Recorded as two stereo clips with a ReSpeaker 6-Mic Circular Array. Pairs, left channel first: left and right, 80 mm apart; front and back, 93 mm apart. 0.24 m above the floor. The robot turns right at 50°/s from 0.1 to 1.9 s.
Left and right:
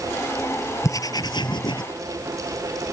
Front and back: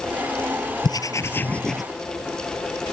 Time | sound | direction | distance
0.8 | writing | 40° left | ?